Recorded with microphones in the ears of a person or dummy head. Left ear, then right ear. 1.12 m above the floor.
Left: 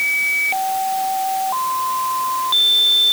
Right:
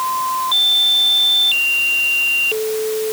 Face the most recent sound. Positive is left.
No sound to turn to.